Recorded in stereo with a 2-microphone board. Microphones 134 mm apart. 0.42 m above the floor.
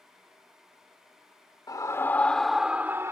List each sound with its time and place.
1.7 s a scream: 25° left (ahead or behind); by 3.1 s 20° right (ahead or behind)